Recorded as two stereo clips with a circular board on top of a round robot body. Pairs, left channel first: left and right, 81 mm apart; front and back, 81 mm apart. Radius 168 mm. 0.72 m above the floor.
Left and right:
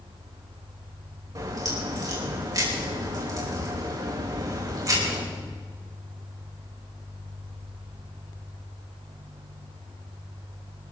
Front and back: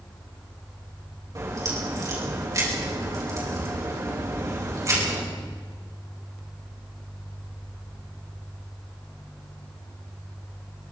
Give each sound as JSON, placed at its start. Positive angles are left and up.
{"t": 1.4, "sound": "a crack", "azimuth_deg": -130, "distance_m": 5.0}